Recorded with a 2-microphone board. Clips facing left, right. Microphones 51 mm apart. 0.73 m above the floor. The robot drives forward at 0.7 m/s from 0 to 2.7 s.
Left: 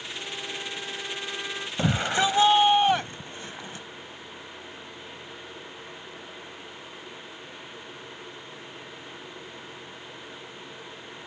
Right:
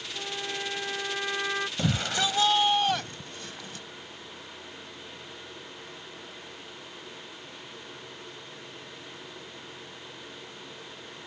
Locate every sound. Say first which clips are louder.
0.1 s a trumpet: right 3 dB; 20° right (ahead or behind); by 1.7 s 35° right (ahead or behind)
1.8 s a shout: left 7 dB; 30° left (ahead or behind); by 3.9 s 25° left (ahead or behind)